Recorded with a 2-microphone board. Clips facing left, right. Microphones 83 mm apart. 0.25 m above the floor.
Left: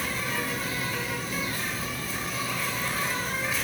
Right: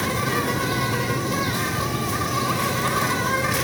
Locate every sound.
0.0 s an insect: 75° right (ahead or behind), 1.0 m